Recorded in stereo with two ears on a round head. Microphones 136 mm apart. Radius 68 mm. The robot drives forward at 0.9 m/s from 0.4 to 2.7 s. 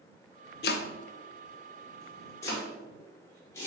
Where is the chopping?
75° left (ahead or behind), 0.6 m; by 3.7 s 15° left (ahead or behind), 2 m.